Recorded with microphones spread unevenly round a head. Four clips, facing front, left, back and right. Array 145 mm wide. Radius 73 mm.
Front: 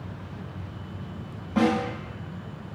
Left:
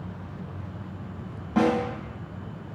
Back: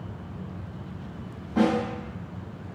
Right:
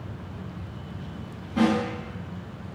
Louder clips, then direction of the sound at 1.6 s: Even, even; 50° left.